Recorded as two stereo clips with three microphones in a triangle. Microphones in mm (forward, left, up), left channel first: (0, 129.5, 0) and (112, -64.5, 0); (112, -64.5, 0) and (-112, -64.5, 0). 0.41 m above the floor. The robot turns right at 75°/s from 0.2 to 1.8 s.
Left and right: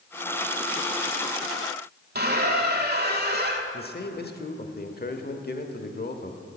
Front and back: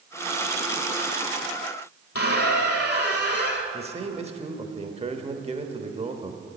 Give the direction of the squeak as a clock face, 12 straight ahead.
12 o'clock.